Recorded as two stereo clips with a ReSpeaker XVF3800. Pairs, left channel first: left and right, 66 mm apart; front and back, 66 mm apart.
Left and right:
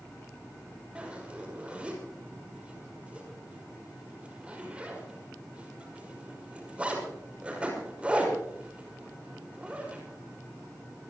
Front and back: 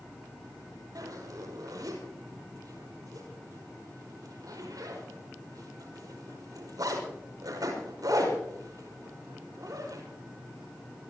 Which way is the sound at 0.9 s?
160° right.